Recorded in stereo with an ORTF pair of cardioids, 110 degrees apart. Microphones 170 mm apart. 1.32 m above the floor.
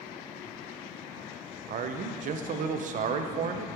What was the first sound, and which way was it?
A man speaking, 50° right.